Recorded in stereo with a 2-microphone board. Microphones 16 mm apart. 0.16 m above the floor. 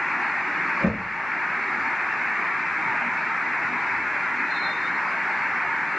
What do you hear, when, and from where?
0.8 s knocking: 10° right (ahead or behind), 2 m